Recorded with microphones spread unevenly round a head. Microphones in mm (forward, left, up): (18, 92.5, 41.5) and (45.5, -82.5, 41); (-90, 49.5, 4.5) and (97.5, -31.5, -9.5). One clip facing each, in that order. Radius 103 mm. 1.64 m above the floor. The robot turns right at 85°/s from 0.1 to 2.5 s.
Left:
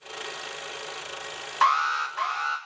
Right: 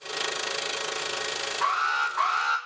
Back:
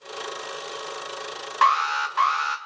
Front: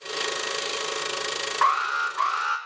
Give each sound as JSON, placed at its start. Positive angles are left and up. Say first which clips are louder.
{"t": 1.6, "sound": "an alarm", "louder": "left 7 dB, back 7 dB", "azimuth_deg": 115, "distance_m": 1.5}